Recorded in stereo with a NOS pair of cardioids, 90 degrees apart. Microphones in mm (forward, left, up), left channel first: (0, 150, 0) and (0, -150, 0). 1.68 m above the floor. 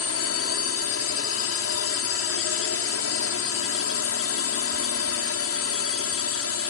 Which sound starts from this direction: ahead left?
A drone, at 0.0 s.